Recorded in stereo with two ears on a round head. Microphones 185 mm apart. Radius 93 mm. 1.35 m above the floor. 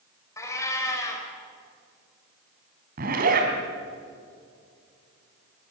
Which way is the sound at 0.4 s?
15° left (ahead or behind).